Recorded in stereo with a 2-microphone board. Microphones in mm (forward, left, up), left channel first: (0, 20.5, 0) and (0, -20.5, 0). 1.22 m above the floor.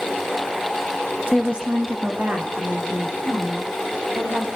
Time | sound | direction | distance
1.3 | a woman speaking | 10° right (ahead or behind) | 1.2 m